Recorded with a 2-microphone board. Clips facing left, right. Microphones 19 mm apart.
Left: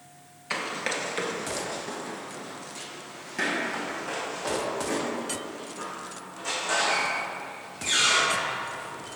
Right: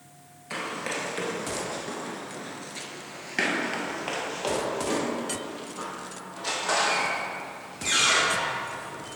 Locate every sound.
0.5 s running footsteps: 35° left (ahead or behind), 1.2 m; by 9.1 s 75° right (ahead or behind), 4 m